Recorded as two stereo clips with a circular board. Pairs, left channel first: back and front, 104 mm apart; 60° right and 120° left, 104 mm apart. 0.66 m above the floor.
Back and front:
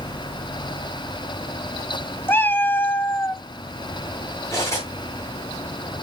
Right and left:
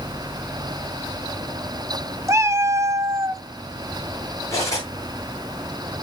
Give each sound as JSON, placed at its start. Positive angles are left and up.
{"t": 2.3, "sound": "a cat meowing", "azimuth_deg": 130, "distance_m": 0.5}
{"t": 4.5, "sound": "cutlery clinking", "azimuth_deg": -120, "distance_m": 6.5}